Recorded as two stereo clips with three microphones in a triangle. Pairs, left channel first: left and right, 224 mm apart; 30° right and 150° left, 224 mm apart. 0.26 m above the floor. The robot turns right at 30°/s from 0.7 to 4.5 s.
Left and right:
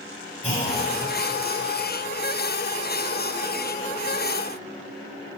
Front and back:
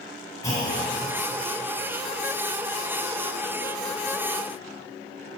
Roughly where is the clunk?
Ahead left.